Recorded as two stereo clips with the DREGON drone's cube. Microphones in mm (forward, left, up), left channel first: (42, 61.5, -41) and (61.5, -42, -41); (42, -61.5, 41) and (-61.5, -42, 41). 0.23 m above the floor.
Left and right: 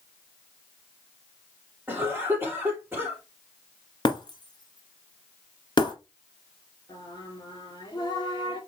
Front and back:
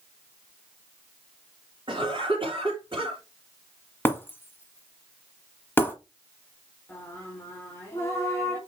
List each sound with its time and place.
1.9 s a cough: 155° right, 3 m
4.0 s breaking glass: 55° left, 1.8 m
6.9 s singing: 55° left, 3 m